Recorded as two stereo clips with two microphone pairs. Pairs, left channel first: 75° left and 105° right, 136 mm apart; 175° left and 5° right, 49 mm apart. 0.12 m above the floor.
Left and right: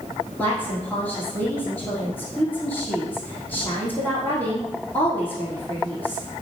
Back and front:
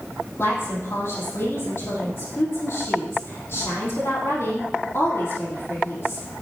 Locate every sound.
0.4 s a woman speaking: 150° left, 4 m